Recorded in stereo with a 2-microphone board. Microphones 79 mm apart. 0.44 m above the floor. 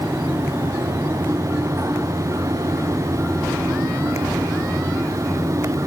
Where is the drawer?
No drawer in this recording.